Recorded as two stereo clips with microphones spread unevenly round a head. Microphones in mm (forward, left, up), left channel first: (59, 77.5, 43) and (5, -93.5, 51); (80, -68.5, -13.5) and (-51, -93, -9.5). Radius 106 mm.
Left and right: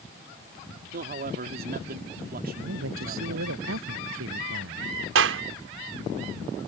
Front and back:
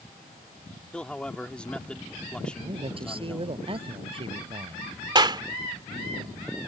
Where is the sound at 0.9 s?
70° right.